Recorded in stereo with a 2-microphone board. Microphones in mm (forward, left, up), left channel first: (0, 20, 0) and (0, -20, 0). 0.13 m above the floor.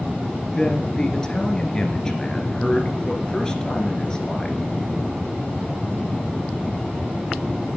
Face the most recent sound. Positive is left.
turn(degrees=20)  # may be behind; listen again after turning